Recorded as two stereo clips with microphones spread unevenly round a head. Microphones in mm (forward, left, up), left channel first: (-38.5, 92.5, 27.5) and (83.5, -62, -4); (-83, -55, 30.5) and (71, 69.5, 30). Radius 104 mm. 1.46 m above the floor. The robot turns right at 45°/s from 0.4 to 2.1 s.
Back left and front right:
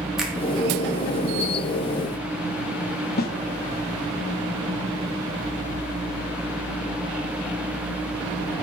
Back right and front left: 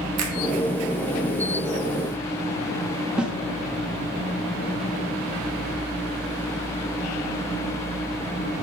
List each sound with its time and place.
0.2 s a finger snap: 35° left, 1.5 m
3.2 s a snare drum: 125° left, 0.7 m